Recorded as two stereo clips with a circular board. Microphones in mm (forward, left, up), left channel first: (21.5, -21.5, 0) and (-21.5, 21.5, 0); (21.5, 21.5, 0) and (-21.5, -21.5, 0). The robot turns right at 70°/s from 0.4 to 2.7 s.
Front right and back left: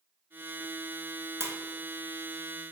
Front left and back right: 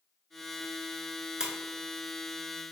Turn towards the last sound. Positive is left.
turn(degrees=-120)